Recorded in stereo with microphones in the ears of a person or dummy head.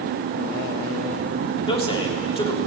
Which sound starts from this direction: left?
A man speaking, at 1.7 s.